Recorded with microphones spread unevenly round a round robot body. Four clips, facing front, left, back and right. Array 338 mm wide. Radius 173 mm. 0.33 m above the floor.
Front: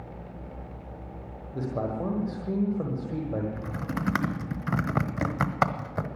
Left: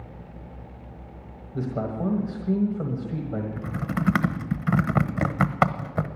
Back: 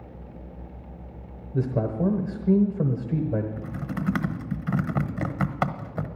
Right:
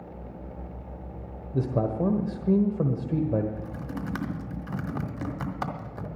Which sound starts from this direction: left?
Typing on a keyboard, at 3.6 s.